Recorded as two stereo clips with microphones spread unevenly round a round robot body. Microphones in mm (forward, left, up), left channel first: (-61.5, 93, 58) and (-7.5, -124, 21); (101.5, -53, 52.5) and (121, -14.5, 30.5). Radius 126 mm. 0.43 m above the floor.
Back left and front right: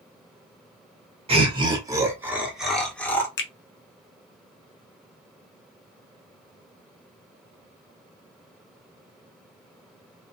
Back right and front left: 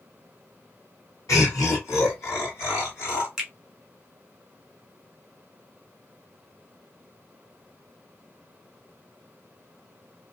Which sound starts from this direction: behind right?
Laughter, at 1.3 s.